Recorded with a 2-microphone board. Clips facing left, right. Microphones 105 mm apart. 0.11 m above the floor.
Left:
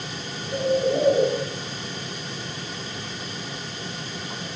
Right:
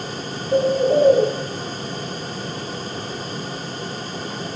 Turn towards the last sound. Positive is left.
turn(degrees=-60)  # may be behind; listen again after turning